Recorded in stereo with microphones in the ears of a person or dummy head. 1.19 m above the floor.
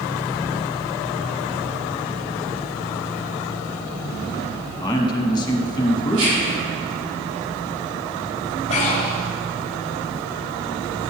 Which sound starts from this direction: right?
Whispering, at 6.1 s.